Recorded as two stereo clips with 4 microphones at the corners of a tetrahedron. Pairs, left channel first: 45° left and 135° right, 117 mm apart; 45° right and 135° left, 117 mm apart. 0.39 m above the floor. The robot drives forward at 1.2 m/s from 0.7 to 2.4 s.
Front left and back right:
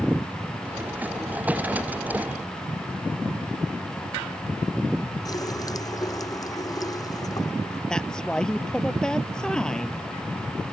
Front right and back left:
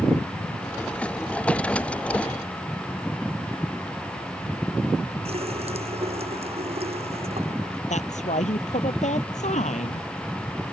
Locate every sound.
5.2 s a running tap: 105° left
7.9 s a woman speaking: 40° right